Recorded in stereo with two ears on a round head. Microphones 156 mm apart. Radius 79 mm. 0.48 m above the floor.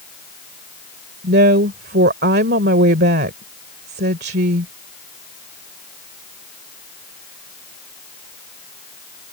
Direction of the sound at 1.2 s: 55° right (ahead or behind).